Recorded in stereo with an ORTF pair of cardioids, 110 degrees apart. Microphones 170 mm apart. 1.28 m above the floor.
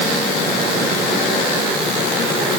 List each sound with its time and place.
Only background noise.